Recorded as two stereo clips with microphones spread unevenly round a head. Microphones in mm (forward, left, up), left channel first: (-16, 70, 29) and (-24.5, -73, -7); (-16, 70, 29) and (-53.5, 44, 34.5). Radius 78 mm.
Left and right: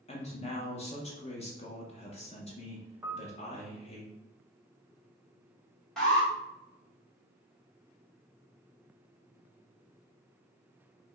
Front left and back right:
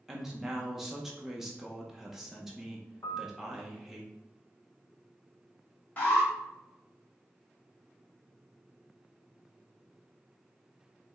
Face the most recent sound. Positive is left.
turn(degrees=-10)